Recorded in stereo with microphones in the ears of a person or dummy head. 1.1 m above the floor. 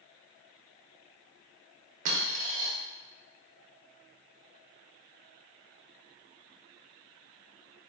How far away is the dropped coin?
About 1.1 m.